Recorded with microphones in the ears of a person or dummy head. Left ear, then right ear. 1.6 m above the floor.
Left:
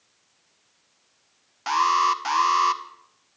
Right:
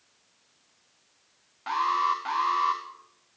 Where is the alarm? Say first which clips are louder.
Left 5 dB; 80° left, 2 m.